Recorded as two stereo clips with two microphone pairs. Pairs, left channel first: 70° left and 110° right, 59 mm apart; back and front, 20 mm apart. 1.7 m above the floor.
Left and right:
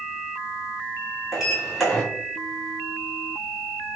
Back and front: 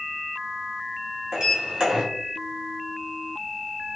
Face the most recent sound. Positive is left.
turn(degrees=-25)